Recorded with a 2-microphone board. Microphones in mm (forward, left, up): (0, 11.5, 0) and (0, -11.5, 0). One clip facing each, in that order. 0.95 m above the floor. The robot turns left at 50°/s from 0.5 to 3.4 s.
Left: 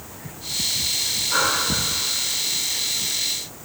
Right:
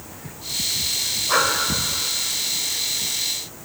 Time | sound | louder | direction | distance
1.3 | breathing | right 2 dB | 85° right | 2 m